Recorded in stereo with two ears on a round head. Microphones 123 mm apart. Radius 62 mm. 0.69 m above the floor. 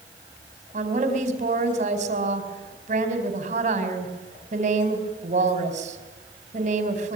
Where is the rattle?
I don't hear a rattle.